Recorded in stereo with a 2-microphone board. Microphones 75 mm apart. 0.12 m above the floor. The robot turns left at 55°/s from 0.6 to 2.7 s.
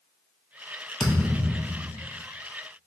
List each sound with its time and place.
1.0 s a thud: 150° left, 1.0 m; by 2.1 s 90° left, 1.0 m